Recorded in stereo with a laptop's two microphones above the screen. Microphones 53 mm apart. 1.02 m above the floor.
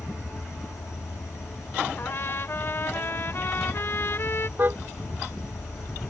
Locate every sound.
0.0 s an insect: 80° left
2.0 s a trumpet: 50° left (ahead or behind)
4.6 s a car horn: 40° right (ahead or behind)